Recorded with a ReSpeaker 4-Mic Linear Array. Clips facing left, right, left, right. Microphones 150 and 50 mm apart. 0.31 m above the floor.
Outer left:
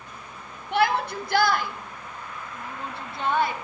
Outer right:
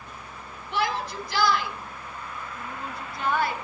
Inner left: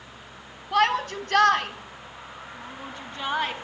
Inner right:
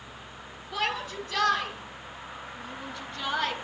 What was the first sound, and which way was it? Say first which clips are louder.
A shout: outer left 5 dB, inner left 9 dB; 65° left (ahead or behind).